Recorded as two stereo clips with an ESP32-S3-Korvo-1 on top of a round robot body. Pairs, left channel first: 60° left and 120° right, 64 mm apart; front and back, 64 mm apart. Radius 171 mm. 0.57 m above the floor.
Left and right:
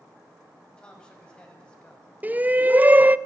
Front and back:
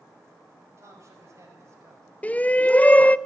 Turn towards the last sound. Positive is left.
turn(degrees=-65)